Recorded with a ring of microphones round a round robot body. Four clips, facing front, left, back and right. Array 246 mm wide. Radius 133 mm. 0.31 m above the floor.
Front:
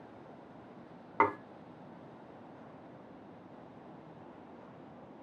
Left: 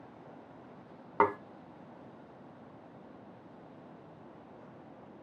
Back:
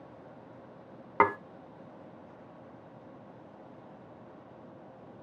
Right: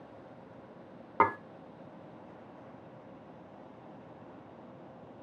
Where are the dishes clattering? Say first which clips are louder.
Right 1 dB, back 4 dB; straight behind, 0.7 m.